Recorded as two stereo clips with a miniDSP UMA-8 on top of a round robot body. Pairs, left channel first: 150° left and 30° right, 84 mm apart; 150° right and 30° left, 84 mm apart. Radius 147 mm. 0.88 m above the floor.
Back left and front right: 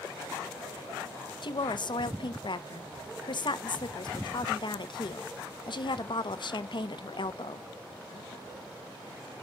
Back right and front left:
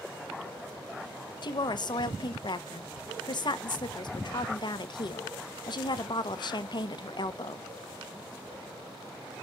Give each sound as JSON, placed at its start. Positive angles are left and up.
{"t": 1.4, "sound": "a woman speaking", "azimuth_deg": 175, "distance_m": 1.0}